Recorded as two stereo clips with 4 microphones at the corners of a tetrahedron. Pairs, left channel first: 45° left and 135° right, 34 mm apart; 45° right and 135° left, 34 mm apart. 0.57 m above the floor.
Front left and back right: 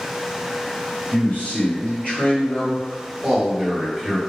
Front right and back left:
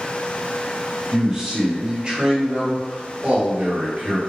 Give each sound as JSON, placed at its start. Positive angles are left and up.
{"t": 1.1, "sound": "a man speaking", "azimuth_deg": 55, "distance_m": 1.9}